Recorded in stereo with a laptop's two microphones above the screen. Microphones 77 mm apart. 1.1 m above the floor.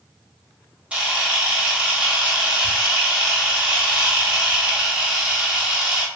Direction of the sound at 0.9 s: 15° right (ahead or behind).